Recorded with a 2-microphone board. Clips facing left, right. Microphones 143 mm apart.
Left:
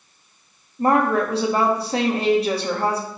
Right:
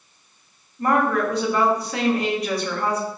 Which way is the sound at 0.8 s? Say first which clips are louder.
Left 2 dB; 30° left (ahead or behind).